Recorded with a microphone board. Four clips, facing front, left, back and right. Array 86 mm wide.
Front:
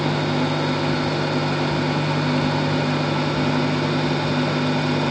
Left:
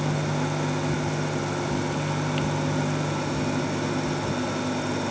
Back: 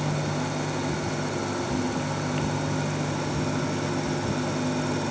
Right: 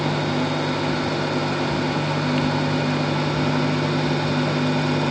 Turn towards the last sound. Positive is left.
No sound to turn to.